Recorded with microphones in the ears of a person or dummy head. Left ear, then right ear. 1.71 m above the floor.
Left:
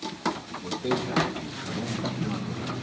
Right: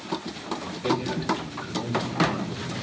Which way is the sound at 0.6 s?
80° left.